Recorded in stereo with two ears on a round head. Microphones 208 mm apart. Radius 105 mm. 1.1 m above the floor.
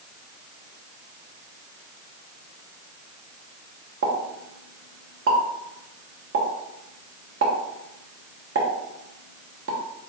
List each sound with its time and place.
4.0 s a pop: 55° right (ahead or behind), 0.9 m